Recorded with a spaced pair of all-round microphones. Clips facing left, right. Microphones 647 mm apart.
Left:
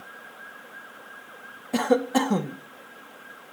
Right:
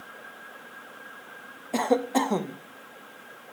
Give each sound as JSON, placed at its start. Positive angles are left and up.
{"t": 1.7, "sound": "a cough", "side_deg": 40, "distance_m": 0.9}